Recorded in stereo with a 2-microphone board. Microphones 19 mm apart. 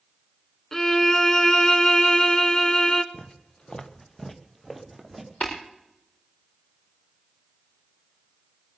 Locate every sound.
0.7 s a violin: 25° left (ahead or behind), 0.9 m
3.1 s footsteps: 65° left (ahead or behind), 1.5 m; by 5.3 s 5° right (ahead or behind), 3 m
5.4 s tapping: 65° left (ahead or behind), 5.5 m